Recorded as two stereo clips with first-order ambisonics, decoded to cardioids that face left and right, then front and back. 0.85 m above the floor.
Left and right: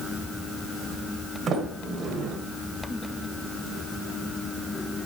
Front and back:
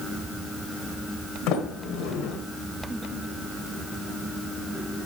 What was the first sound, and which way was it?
A sliding door, 35° right.